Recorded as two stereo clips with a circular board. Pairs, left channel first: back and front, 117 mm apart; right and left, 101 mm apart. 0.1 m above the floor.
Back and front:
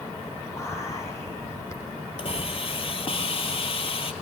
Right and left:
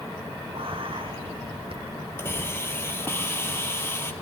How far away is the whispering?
About 5 m.